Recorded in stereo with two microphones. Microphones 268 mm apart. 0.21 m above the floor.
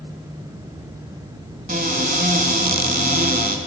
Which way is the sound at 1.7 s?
35° right (ahead or behind).